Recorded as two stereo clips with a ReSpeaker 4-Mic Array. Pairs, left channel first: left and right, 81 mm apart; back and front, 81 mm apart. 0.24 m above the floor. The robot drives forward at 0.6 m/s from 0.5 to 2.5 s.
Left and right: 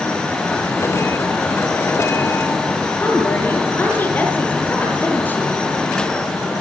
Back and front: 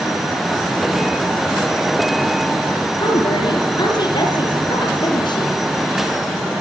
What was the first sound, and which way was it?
A woman speaking, 155° left.